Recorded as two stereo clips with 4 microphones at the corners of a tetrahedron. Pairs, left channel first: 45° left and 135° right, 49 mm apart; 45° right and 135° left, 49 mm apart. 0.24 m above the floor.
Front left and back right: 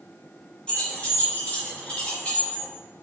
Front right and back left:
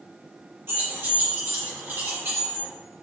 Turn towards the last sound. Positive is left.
turn(degrees=105)